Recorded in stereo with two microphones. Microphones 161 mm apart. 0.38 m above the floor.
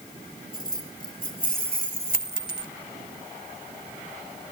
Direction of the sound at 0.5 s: 60° left (ahead or behind).